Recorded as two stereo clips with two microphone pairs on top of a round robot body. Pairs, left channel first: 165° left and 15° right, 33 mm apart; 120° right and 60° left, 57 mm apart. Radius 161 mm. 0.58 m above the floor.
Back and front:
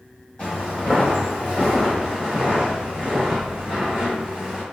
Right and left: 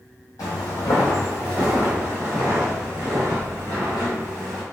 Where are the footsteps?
140° right, 1.1 m; by 4.6 s 55° left, 1.4 m.